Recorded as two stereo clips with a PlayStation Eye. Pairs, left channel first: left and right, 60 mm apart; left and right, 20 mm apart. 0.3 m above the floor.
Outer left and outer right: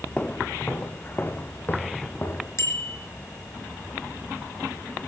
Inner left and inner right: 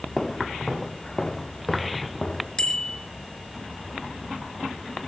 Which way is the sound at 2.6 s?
50° left (ahead or behind).